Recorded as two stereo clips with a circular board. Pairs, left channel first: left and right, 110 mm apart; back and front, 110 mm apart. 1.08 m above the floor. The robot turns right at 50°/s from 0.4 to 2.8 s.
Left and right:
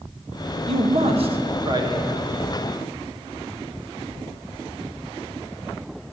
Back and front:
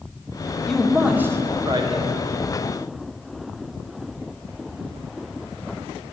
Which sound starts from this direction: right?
A man speaking, at 0.7 s.